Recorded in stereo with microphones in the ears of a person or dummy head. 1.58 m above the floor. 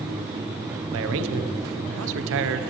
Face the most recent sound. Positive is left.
turn(degrees=-70)  # may be behind; listen again after turning